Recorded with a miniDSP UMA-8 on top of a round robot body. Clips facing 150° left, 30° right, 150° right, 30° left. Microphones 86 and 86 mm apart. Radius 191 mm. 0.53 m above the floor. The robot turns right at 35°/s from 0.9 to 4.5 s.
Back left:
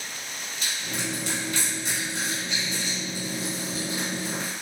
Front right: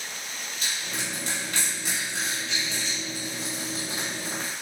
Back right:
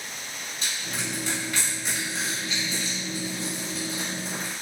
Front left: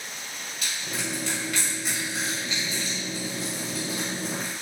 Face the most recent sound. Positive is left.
turn(degrees=40)